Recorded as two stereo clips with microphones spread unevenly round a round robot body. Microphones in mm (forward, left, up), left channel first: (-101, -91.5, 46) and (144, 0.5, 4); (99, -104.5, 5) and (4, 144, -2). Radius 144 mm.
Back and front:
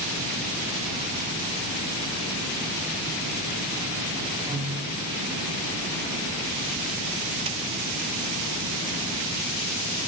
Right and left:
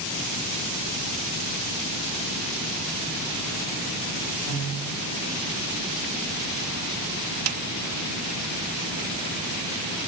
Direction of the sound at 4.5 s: 50° right.